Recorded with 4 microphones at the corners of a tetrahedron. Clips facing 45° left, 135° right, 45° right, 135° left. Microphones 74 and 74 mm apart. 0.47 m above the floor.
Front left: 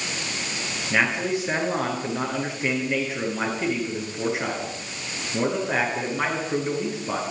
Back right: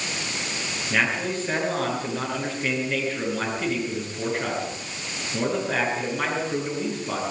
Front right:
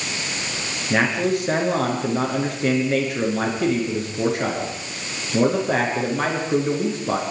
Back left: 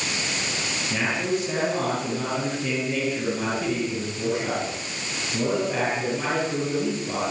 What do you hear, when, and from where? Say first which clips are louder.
0.9 s a man speaking: front left 2 dB, front right 6 dB; 35° right, 9 m